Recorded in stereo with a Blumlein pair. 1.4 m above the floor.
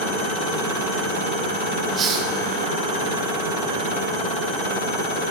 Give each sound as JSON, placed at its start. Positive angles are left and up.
{"t": 2.0, "sound": "a hiss", "azimuth_deg": -25, "distance_m": 1.2}